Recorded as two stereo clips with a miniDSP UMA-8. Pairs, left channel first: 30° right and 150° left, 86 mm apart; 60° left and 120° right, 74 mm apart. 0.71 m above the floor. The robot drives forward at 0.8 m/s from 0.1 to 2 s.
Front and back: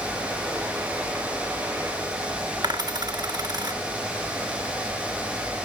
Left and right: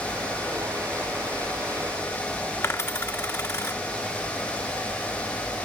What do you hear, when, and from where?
2.6 s a dropped coin: 115° left, 1.4 m